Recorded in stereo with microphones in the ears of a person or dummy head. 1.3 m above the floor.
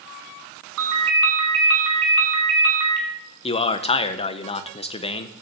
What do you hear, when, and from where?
0.8 s a ringtone: 80° right, 4.5 m
3.4 s a man speaking: 30° left (ahead or behind), 0.7 m